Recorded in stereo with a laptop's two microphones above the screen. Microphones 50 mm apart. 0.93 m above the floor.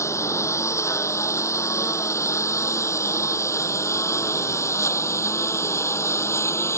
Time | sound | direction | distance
0.0 | a lawn mower | 75° left (ahead or behind) | ?